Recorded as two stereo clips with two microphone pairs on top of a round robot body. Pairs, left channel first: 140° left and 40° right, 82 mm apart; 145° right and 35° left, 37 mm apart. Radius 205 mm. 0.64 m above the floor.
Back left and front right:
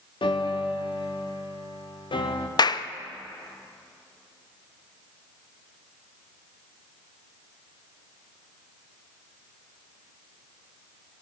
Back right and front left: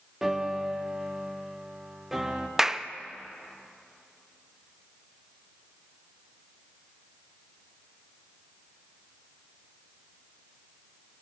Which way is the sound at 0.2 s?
115° left.